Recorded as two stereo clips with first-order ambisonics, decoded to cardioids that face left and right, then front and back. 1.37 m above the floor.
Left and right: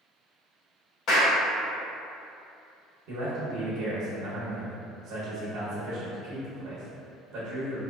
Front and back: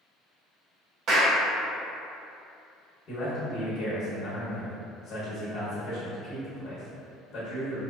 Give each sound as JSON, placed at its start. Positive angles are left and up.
{"t": 1.1, "sound": "a clap", "azimuth_deg": 135, "distance_m": 0.7}
{"t": 3.1, "sound": "a man speaking", "azimuth_deg": -55, "distance_m": 0.8}